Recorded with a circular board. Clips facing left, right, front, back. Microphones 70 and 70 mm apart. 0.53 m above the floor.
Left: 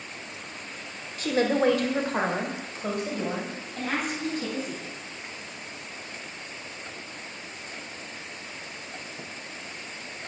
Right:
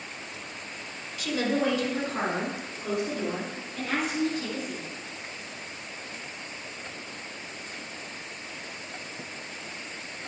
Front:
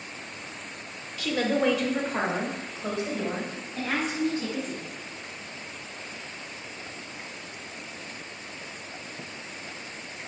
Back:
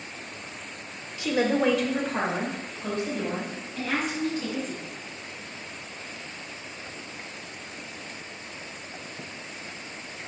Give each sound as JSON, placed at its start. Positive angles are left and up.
{"t": 1.2, "sound": "a woman speaking", "azimuth_deg": 120, "distance_m": 1.6}